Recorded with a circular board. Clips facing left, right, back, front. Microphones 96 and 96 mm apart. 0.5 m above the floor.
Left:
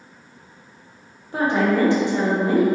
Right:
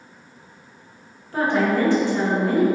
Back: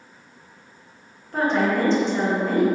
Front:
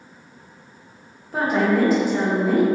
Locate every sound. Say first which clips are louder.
1.3 s a woman speaking: left 1 dB, front 1 dB; 70° left, 0.9 m